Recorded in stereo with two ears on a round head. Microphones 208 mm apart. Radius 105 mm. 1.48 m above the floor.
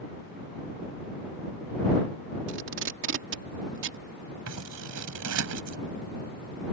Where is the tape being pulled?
60° right (ahead or behind).